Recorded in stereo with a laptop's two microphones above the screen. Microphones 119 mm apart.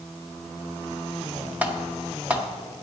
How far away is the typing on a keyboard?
About 0.7 m.